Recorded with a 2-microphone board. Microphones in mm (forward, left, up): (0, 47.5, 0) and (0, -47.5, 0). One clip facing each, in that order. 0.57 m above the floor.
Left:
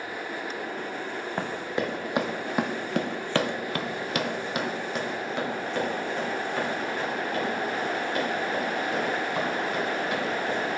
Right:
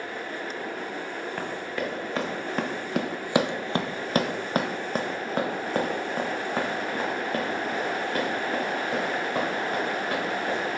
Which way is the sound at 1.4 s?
20° left (ahead or behind).